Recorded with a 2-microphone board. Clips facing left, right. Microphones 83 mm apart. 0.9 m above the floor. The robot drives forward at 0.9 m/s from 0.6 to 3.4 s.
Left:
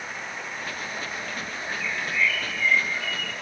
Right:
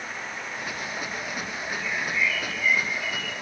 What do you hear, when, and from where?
1.7 s a bird: 75° left (ahead or behind), 4.5 m; by 3.3 s 60° left (ahead or behind), 5.5 m